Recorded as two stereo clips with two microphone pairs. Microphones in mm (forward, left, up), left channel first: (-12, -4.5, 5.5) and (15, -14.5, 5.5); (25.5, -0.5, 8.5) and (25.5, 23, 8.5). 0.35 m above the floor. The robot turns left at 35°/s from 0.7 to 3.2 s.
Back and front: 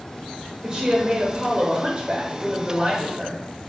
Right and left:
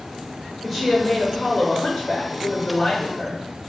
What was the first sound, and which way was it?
A woman speaking, 5° left.